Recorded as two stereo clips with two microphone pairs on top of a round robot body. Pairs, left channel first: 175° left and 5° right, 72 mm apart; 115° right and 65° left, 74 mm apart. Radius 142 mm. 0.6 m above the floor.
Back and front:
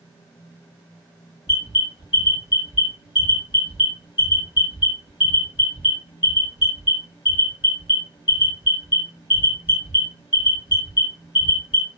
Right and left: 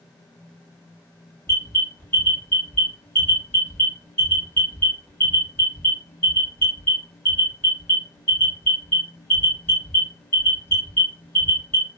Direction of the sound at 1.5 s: 170° right.